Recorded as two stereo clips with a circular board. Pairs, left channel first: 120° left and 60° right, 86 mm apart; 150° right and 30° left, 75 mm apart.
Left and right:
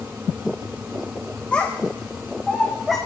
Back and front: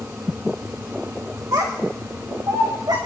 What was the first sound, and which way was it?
A child speaking, 50° left.